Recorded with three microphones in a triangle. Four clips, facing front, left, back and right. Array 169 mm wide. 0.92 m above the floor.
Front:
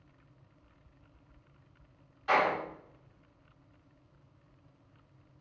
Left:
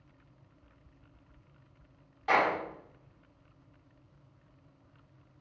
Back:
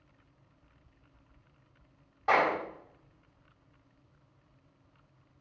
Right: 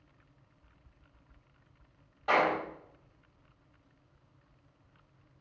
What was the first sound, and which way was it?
A clap, 160° right.